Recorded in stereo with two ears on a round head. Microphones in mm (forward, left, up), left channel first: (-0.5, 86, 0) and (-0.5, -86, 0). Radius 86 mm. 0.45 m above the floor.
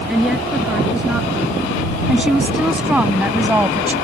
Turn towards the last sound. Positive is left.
turn(degrees=-10)  # may be behind; listen again after turning